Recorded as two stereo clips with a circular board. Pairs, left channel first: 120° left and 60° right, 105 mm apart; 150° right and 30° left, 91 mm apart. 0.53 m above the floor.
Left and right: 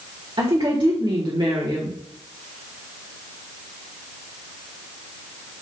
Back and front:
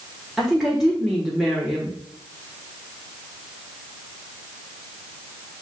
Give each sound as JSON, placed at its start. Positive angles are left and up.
{"t": 0.4, "sound": "a woman speaking", "azimuth_deg": -55, "distance_m": 1.7}